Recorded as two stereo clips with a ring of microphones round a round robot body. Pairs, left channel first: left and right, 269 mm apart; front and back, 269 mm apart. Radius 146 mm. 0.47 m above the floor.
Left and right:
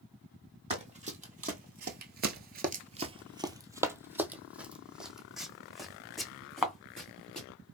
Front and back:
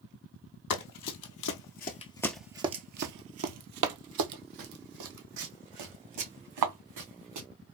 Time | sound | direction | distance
0.7 | running footsteps | 25° right | 1.0 m